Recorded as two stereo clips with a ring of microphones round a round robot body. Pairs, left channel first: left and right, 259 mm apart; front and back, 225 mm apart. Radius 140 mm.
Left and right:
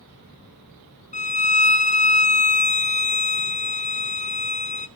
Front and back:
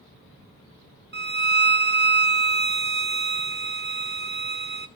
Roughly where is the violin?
Behind left.